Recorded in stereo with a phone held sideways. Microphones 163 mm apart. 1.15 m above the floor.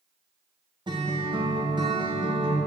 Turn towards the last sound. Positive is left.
turn(degrees=-30)  # may be behind; listen again after turning